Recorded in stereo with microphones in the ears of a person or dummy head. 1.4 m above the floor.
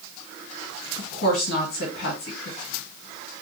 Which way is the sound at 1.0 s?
75° left (ahead or behind).